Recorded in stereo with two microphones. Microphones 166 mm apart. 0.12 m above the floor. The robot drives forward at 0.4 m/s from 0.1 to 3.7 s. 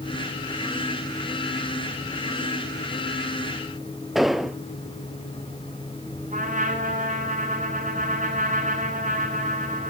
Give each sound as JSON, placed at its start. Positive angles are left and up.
{"t": 4.2, "sound": "an explosion", "side_deg": 0, "distance_m": 0.9}
{"t": 6.3, "sound": "a trumpet", "side_deg": -50, "distance_m": 9.5}